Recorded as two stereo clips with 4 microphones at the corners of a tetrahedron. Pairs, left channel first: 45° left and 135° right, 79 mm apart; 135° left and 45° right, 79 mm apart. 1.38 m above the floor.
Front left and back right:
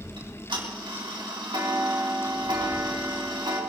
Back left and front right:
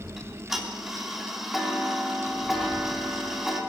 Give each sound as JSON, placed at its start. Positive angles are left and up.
{"t": 0.2, "sound": "ticking", "azimuth_deg": -130, "distance_m": 2.5}